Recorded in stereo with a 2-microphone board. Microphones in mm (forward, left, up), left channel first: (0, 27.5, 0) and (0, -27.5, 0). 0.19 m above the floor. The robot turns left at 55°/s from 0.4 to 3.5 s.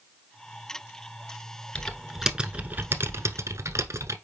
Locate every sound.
1.8 s typing on a keyboard: 15° left, 0.9 m; by 4.2 s 80° right, 0.9 m